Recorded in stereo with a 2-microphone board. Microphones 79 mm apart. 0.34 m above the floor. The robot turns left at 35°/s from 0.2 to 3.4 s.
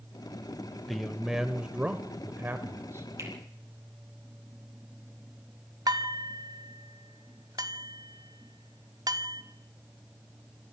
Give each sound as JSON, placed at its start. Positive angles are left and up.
{"t": 0.9, "sound": "a man speaking", "azimuth_deg": 5, "distance_m": 1.2}
{"t": 3.2, "sound": "a finger snap", "side_deg": -40, "distance_m": 8.0}
{"t": 5.9, "sound": "dishes clattering", "side_deg": -55, "distance_m": 1.3}